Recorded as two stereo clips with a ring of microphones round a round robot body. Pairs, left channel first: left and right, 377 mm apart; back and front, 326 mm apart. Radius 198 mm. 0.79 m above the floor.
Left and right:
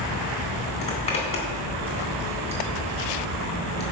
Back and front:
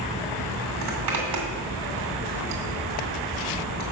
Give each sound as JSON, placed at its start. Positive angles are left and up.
{"t": 0.8, "sound": "a zipper", "azimuth_deg": 15, "distance_m": 2.5}